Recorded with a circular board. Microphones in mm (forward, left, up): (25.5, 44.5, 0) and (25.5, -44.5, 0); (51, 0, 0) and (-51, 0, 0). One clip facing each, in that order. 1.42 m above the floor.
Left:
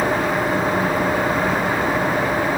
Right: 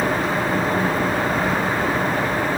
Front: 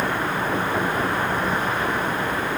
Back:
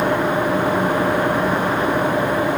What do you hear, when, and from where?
0.0 s an engine running: 165° left